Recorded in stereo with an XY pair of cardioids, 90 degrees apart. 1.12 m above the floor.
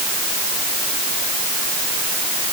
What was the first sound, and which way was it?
Only background noise.